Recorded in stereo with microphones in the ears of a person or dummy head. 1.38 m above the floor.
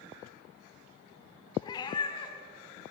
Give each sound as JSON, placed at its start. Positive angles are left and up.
{"t": 1.6, "sound": "a cat meowing", "side_deg": 25, "distance_m": 2.5}